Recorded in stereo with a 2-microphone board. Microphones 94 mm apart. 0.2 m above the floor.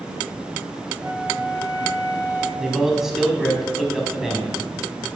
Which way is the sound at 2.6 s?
5° right (ahead or behind).